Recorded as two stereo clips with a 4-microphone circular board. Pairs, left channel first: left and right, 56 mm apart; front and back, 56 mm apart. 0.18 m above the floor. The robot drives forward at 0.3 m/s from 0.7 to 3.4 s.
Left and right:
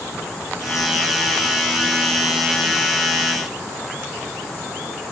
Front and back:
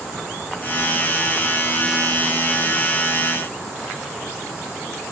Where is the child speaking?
No child speaking in this recording.